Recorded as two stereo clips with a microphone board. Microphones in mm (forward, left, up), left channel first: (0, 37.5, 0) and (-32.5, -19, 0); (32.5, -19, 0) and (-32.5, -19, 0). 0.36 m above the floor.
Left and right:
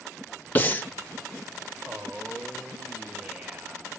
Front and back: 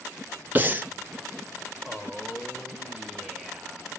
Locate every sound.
0.6 s breathing: 120° left, 0.7 m
1.9 s a man speaking: 105° right, 1.0 m